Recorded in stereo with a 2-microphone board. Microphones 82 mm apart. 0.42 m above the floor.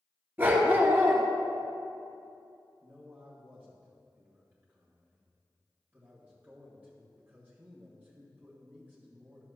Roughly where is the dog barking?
Right.